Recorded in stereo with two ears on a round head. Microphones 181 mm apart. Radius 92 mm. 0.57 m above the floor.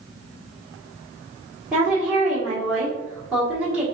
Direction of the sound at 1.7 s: 5° right (ahead or behind).